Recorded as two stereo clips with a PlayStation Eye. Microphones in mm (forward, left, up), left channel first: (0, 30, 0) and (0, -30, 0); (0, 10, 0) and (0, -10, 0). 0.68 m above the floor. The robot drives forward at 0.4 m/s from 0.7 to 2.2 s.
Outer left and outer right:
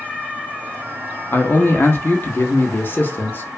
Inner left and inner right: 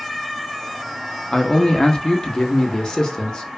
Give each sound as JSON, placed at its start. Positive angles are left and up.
{"t": 1.3, "sound": "a man speaking", "side_deg": 35, "distance_m": 0.6}